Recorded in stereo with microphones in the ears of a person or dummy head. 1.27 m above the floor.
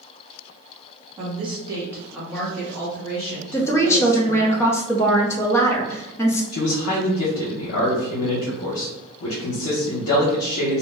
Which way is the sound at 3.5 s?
15° left (ahead or behind).